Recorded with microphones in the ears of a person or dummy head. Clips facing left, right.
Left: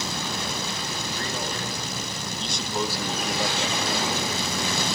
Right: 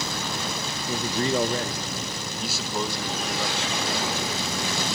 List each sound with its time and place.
0.9 s a man speaking: 70° right (ahead or behind), 1.7 m; by 4.3 s 25° left (ahead or behind), 3.5 m